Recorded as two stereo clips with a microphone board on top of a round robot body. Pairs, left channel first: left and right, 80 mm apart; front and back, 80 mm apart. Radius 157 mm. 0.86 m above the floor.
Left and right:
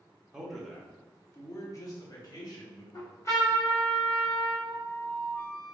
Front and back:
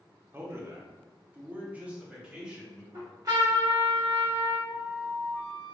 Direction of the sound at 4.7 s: 45° left.